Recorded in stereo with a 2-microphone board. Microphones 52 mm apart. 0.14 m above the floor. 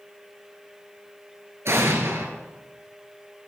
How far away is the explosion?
About 1.9 m.